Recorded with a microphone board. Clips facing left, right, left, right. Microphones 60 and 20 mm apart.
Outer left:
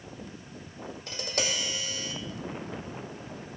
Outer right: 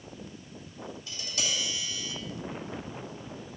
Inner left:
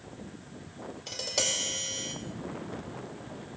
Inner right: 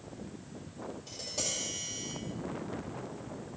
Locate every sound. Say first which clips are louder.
1.1 s tapping: outer left 4 dB, inner left 7 dB; 55° left (ahead or behind), 1.6 m